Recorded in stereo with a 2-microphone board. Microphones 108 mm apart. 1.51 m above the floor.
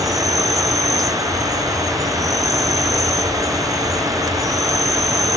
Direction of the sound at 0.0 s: 30° right (ahead or behind).